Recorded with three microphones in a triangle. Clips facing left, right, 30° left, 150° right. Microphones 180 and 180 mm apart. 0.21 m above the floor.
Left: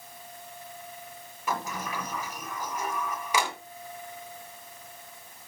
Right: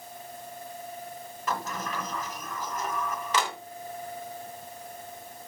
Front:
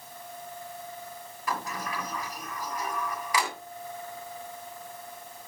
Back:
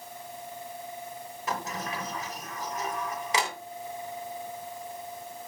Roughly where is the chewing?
No chewing in this recording.